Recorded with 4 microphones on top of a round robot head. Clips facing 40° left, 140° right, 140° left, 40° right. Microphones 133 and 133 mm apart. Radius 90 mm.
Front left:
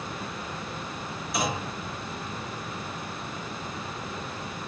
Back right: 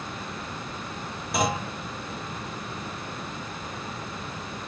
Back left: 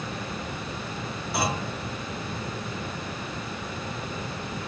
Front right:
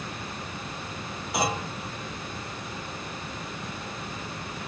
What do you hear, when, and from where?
1.3 s a clunk: 115° right, 1.7 m